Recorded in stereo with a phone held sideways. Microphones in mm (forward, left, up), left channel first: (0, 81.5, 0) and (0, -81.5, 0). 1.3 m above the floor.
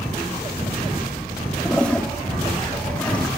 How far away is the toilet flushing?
About 1.4 m.